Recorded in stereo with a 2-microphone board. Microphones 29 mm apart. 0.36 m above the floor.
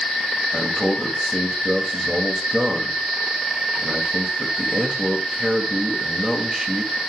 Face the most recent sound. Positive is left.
turn(degrees=-25)  # may be behind; listen again after turning